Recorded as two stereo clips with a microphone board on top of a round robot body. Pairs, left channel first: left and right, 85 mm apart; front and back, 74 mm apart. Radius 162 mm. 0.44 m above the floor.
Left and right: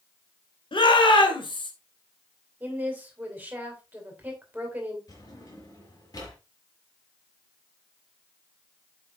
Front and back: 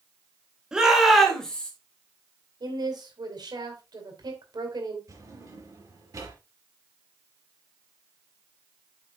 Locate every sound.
0.7 s a shout: 100° left, 3 m; by 1.7 s 75° left, 2.5 m
2.6 s a woman speaking: 160° right, 3.5 m
5.1 s a drawer: 135° left, 4.5 m